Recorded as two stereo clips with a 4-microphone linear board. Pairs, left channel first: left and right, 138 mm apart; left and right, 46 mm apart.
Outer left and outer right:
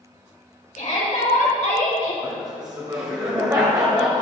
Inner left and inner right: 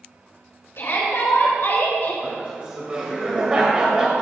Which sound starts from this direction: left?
A shout, at 0.8 s.